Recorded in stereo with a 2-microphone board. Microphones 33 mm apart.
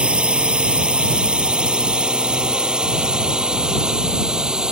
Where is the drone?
35° right (ahead or behind); by 4.7 s 25° right (ahead or behind).